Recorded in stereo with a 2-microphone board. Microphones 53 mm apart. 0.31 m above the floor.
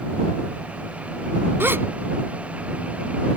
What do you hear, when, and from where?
1.6 s a gasp: 50° right (ahead or behind)